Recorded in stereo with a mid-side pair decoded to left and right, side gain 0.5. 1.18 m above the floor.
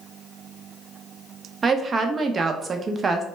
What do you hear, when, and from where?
1.6 s a woman speaking: 35° right, 0.5 m